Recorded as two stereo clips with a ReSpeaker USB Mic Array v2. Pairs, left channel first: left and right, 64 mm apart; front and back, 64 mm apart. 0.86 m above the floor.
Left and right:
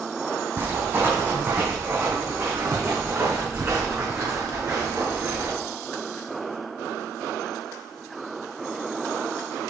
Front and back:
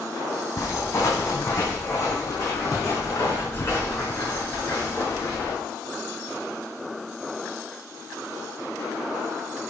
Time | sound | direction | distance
0.6 | footsteps | 40° right | 2.5 m